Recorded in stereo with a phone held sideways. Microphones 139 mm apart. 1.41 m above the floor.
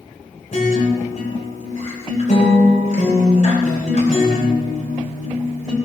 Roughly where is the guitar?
Left.